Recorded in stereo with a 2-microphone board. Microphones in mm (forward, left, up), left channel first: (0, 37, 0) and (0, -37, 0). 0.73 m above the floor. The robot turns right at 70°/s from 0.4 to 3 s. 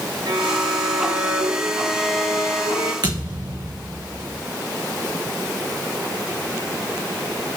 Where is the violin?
100° right, 3.5 m; by 2.9 s 80° left, 3.5 m.